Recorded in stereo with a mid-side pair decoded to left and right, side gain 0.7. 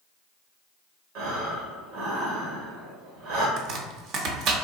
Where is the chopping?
55° right, 0.6 m.